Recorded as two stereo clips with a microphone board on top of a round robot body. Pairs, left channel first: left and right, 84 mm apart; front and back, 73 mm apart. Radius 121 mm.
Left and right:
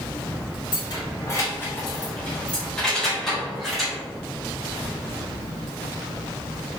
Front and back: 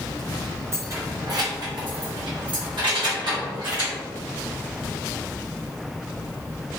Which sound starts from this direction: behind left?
Keys jangling, at 0.7 s.